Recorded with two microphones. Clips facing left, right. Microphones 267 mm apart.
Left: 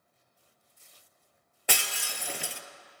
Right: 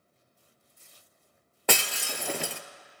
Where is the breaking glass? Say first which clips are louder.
Right 7 dB; 70° right (ahead or behind), 0.7 m.